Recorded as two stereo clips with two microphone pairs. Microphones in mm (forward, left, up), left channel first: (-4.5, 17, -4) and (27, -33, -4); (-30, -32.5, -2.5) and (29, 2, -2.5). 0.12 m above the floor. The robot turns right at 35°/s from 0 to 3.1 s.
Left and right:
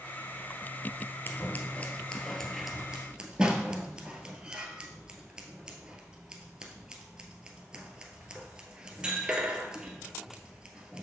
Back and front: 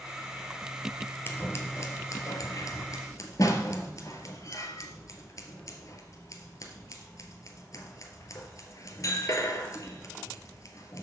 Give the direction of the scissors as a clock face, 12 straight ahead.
7 o'clock.